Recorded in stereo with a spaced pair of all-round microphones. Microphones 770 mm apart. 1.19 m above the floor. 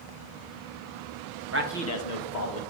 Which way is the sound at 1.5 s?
20° right (ahead or behind).